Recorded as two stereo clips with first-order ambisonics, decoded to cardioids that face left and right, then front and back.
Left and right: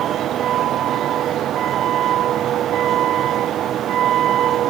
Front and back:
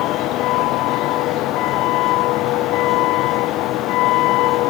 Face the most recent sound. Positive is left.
turn(degrees=-35)